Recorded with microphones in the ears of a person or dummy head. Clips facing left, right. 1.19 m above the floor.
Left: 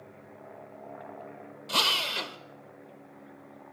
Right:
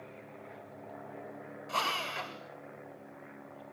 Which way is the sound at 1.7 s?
50° left (ahead or behind).